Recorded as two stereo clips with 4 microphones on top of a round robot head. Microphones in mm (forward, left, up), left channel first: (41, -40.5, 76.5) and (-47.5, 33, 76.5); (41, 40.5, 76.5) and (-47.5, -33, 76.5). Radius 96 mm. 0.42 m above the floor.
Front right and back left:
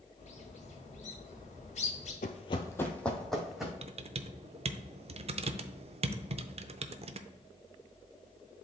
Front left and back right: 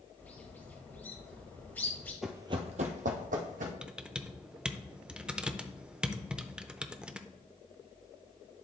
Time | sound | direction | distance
0.2 | a bird | 35° right | 2 m
2.2 | running footsteps | 50° right | 0.6 m
3.8 | typing on a keyboard | 140° left | 0.7 m